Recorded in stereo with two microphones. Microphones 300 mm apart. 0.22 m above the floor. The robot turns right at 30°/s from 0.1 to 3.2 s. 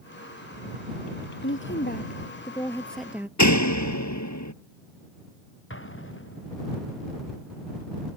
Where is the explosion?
40° left (ahead or behind).